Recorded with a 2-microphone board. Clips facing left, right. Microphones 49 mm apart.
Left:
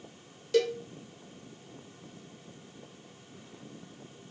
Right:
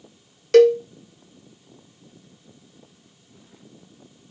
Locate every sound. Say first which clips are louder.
0.5 s a cowbell: right 14 dB; 70° right (ahead or behind), 0.6 m